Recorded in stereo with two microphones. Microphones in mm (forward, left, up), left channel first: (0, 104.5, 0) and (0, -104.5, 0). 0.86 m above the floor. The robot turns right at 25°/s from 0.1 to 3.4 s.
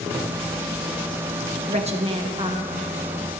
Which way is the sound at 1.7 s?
35° right (ahead or behind).